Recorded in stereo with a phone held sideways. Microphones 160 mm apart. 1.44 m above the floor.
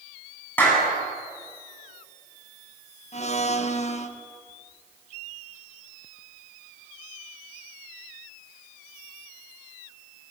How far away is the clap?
About 10 m.